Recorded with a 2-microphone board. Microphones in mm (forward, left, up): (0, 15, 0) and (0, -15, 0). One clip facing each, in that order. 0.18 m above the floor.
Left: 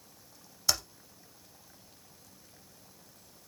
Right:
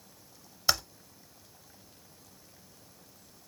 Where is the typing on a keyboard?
20° right (ahead or behind), 1.0 m.